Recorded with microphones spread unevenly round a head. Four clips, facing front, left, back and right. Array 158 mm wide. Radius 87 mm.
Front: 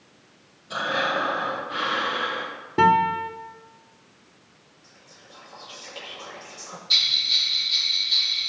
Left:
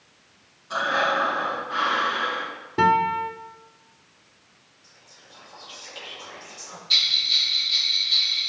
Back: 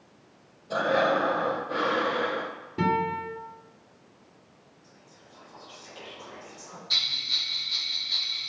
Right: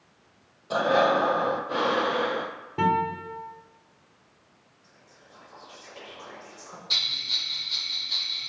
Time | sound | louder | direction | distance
0.7 | breathing | right 2 dB, back 2 dB | 110° right | 0.8 m
2.8 | a guitar | left 5 dB, front 8 dB | 15° left | 2 m
4.8 | whispering | left 1 dB, front 4 dB | 15° right | 7 m
6.9 | a bell | left 5 dB, front 4 dB | 80° right | 2.5 m